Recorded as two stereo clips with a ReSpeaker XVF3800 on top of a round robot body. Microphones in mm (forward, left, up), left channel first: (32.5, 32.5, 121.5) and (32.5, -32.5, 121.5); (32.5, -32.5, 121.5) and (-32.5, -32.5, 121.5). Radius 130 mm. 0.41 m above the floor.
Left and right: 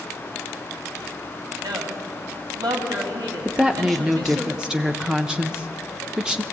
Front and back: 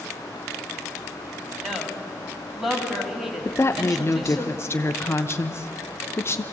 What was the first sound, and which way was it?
A woman speaking, 95° right.